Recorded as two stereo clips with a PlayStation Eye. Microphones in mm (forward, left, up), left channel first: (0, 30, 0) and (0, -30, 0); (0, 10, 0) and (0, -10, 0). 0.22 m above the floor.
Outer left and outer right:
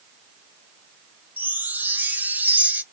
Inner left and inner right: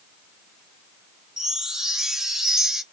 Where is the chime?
30° right (ahead or behind), 0.6 m.